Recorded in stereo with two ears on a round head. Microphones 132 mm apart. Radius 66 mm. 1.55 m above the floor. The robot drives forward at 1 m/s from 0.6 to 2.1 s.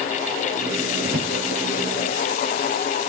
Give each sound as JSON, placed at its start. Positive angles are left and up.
{"t": 1.0, "sound": "a drawer", "side_deg": -70, "distance_m": 7.5}